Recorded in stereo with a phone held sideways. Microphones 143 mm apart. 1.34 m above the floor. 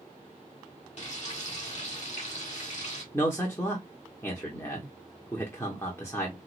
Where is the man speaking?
15° left (ahead or behind), 0.9 m.